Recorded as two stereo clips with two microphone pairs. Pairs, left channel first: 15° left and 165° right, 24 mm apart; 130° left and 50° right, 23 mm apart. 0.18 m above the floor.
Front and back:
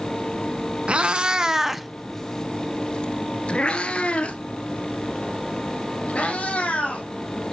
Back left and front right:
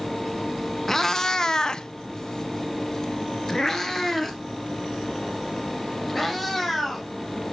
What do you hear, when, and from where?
0.9 s a cat meowing: 165° right, 0.6 m; by 7.1 s 45° left, 3 m